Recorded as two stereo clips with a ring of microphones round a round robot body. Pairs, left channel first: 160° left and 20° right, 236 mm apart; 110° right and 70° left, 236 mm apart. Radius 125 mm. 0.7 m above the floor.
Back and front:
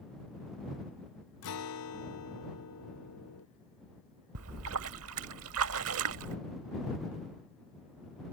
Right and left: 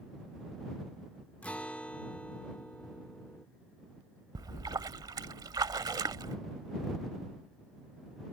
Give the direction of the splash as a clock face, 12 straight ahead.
12 o'clock.